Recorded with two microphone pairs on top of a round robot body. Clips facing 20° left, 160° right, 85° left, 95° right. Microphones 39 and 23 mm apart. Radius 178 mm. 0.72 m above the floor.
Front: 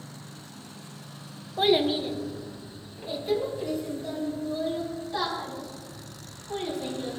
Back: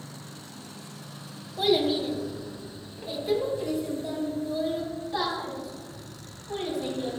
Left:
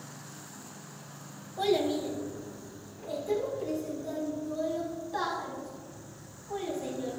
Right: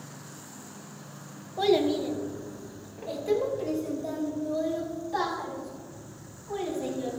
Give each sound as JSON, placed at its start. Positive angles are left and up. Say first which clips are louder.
{"t": 1.6, "sound": "a child speaking", "louder": "front 1 dB, right 4 dB", "azimuth_deg": -25, "distance_m": 1.1}